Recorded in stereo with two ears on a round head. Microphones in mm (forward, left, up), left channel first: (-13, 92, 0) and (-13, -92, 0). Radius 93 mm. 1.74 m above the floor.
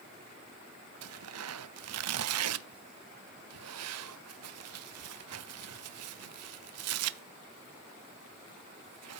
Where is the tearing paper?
80° right, 0.5 m.